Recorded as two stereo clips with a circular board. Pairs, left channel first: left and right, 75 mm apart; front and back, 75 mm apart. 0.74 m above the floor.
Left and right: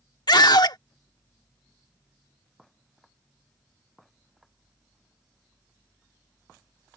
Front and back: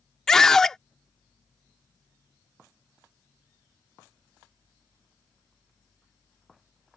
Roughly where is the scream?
Left.